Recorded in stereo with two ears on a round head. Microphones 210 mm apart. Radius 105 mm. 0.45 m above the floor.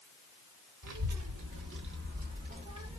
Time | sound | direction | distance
0.8 | a child speaking | 70° right (ahead or behind) | 1.2 m